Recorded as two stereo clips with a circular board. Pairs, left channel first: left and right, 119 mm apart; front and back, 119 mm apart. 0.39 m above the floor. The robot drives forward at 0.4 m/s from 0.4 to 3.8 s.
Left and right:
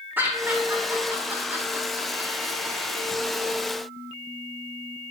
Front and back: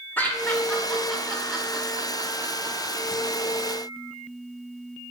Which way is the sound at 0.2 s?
45° right.